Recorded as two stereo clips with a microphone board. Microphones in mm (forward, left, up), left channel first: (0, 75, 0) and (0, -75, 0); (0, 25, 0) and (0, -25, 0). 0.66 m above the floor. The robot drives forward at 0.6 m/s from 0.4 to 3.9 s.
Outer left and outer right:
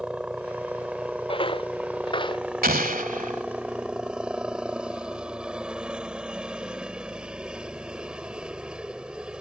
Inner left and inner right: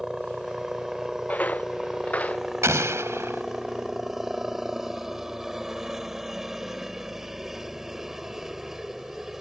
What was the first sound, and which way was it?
A helicopter, 10° right (ahead or behind).